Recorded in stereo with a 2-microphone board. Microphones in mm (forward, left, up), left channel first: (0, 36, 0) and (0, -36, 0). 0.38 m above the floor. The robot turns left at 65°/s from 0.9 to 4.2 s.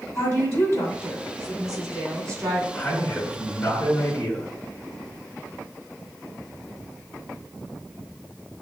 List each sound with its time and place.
0.1 s a woman speaking: 40° left, 2.5 m; by 2.6 s 70° right, 2.5 m
2.7 s a man speaking: 130° left, 1.6 m; by 4.5 s 35° left, 1.6 m